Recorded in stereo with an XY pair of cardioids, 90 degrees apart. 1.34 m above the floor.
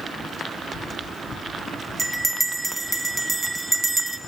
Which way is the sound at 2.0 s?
25° right.